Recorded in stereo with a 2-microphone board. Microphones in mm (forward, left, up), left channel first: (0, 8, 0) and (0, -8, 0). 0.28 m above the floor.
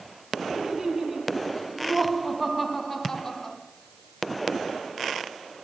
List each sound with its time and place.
0.5 s laughter: 40° right (ahead or behind), 2.5 m; by 3.6 s 20° left (ahead or behind), 1.9 m